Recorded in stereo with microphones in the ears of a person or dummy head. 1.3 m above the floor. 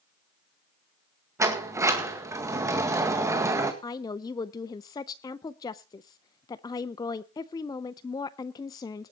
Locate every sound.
1.4 s a sliding door: 20° right (ahead or behind), 1.8 m
3.8 s a woman speaking: 30° left (ahead or behind), 0.5 m